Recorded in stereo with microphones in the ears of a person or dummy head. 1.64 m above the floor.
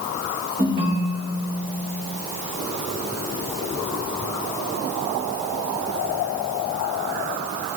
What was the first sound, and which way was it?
A ringtone, 50° right (ahead or behind).